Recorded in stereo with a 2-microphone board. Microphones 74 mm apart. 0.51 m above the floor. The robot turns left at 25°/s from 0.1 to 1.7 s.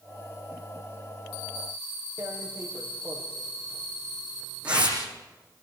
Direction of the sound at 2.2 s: 15° right (ahead or behind).